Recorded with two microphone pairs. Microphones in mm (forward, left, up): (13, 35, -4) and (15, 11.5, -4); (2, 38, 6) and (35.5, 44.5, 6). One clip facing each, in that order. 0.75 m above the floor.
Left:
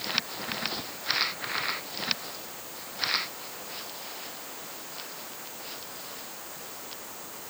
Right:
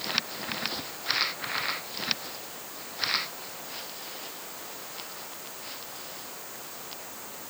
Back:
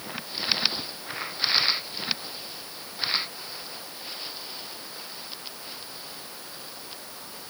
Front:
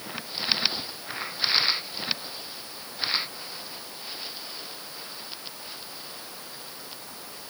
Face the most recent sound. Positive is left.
No sound to turn to.